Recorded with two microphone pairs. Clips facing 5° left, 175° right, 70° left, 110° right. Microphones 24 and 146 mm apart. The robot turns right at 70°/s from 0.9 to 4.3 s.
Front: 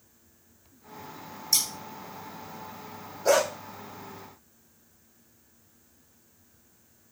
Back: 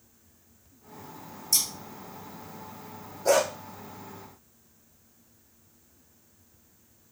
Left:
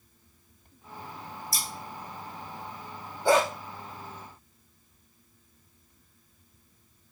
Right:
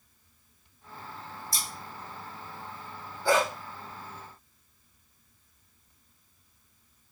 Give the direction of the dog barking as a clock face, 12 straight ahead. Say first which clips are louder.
Even, left 3 dB; 11 o'clock.